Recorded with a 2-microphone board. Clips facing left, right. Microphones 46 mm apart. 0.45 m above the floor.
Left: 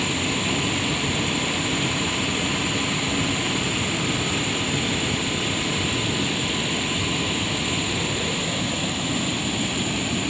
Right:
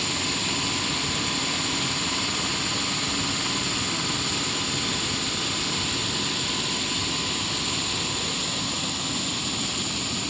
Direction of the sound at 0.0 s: 30° left (ahead or behind).